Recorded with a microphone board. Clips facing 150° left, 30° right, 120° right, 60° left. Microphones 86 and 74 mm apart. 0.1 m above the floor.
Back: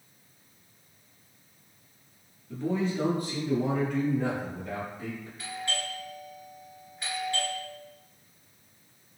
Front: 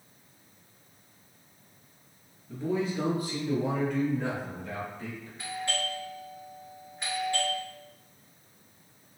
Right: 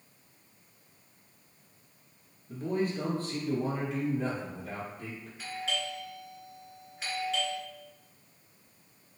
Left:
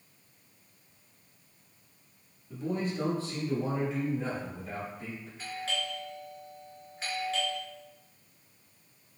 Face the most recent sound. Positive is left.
turn(degrees=-35)